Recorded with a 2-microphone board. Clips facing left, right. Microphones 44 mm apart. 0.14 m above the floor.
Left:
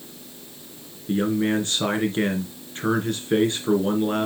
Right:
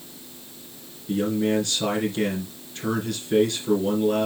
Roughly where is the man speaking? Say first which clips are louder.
Left 1 dB; left.